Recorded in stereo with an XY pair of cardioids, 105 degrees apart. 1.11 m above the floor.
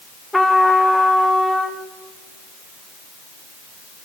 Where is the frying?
No frying in this recording.